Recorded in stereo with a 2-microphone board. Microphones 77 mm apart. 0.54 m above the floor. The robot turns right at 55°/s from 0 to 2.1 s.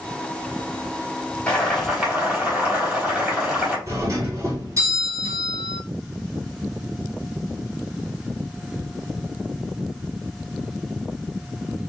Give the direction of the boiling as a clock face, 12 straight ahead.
7 o'clock.